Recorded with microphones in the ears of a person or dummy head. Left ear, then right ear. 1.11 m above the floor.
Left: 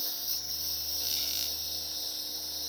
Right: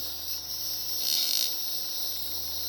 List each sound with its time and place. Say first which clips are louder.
0.0 s a lawn mower: left 1 dB; centre (ahead or behind); by 2.7 s 10° right (ahead or behind)
1.0 s a squeak: right 7 dB; 25° right (ahead or behind)